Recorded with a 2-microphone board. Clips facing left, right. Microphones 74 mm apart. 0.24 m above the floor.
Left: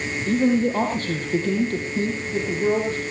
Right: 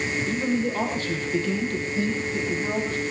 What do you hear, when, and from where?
0.3 s a man speaking: 50° left (ahead or behind), 6 m; by 3.0 s 35° left (ahead or behind), 8.5 m